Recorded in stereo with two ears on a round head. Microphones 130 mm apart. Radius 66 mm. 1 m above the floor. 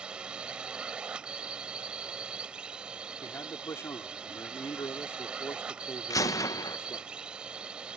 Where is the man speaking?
20° left (ahead or behind).